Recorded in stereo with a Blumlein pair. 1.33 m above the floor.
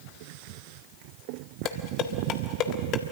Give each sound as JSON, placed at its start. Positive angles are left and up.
{"t": 1.6, "sound": "dishes clattering", "azimuth_deg": 35, "distance_m": 1.6}